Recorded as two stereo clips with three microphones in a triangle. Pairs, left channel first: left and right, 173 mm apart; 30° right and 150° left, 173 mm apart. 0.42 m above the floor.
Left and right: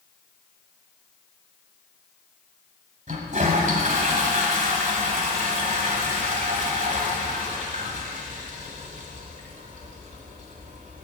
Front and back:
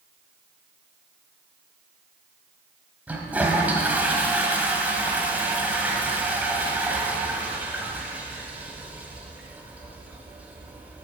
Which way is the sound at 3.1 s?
130° right.